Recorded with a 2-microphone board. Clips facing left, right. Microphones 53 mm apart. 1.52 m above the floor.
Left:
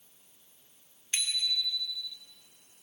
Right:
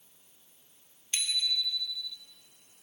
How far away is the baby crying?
No baby crying in this recording.